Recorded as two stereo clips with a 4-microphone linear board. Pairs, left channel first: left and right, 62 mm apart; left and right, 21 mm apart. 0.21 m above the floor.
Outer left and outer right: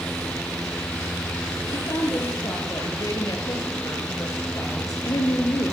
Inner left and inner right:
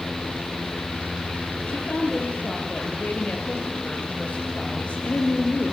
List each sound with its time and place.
1.7 s a woman speaking: 70° left (ahead or behind), 4.5 m